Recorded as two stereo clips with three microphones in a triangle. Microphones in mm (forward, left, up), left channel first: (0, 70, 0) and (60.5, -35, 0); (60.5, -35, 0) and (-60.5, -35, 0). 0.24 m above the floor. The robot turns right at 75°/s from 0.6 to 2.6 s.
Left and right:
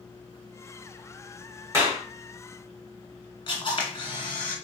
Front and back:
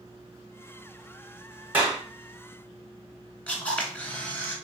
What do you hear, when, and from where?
1.7 s a clap: 115° right, 0.9 m; by 2.0 s 90° right, 0.9 m
3.5 s a camera shutter: 75° left, 1.1 m